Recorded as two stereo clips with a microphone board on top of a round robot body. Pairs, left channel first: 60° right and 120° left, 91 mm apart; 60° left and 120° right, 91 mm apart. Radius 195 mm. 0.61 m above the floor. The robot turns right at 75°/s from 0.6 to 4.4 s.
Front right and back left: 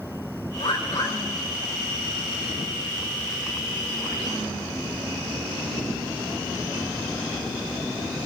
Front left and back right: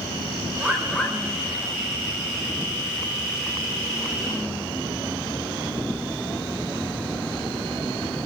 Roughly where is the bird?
Ahead right.